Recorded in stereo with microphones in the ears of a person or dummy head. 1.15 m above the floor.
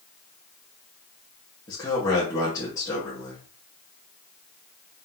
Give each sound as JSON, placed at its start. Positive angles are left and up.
{"t": 1.7, "sound": "a man speaking", "side_deg": 20, "distance_m": 1.8}